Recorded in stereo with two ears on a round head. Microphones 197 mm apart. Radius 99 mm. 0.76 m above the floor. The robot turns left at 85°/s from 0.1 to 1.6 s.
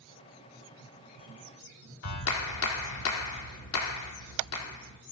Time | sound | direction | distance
2.0 | a clap | 80° left | 1.2 m